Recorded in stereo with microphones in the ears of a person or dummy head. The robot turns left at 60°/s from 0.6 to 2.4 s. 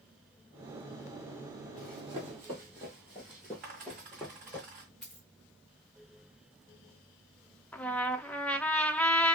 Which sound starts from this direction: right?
A dropped coin, at 3.6 s.